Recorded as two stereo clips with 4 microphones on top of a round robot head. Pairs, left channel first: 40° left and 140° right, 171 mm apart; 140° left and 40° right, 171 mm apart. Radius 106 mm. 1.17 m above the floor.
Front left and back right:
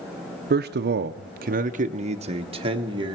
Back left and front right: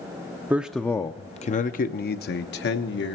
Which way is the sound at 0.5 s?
115° right.